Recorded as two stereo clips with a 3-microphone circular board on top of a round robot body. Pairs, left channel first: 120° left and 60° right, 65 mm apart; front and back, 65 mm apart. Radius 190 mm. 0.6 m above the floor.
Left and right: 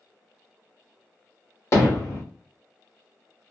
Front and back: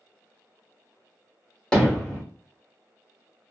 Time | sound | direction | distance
1.7 | hammering | 75° left | 1.5 m